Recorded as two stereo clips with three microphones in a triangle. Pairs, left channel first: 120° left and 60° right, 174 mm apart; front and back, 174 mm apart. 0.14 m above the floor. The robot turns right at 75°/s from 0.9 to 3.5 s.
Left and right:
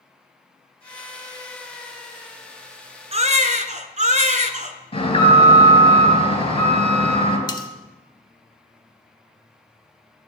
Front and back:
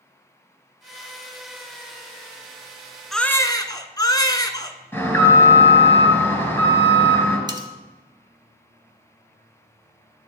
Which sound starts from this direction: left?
An alarm, at 4.9 s.